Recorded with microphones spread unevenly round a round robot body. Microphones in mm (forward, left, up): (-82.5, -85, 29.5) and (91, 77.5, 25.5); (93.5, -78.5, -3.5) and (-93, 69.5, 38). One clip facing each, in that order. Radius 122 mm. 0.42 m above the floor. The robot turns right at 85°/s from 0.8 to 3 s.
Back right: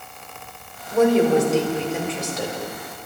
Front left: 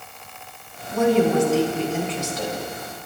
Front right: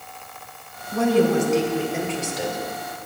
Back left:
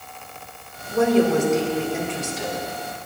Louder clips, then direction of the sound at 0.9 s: Back right 2 dB, back left 1 dB; 160° left.